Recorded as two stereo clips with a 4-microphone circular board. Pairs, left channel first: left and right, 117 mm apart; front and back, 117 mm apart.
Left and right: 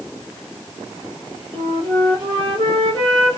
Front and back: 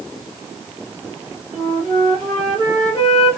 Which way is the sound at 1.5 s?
85° right.